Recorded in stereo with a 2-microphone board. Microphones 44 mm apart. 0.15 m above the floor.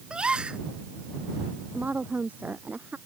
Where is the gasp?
20° right (ahead or behind).